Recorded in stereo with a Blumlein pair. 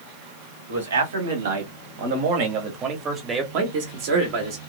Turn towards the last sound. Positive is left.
turn(degrees=-45)